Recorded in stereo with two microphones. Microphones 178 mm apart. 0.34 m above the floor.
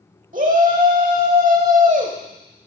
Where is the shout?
45° right (ahead or behind), 1.3 m.